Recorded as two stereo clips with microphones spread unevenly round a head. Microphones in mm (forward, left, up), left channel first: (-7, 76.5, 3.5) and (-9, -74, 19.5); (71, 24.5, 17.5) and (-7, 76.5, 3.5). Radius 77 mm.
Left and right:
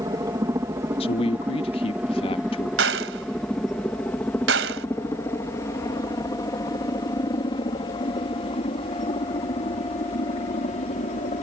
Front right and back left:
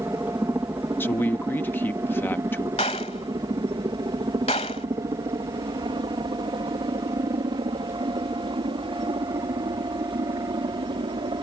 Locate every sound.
0.0 s a helicopter: 150° right; by 11.4 s 125° left
1.0 s a man speaking: 35° left
2.8 s a gunshot: 90° right